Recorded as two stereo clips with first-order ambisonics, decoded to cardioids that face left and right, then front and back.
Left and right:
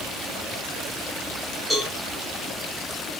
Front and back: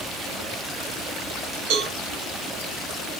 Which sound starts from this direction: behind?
A cowbell, at 1.7 s.